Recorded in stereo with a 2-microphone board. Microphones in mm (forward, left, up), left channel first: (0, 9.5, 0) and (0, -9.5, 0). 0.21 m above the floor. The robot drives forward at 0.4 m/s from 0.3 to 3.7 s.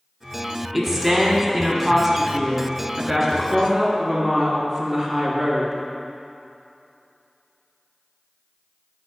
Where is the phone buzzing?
I don't hear a phone buzzing.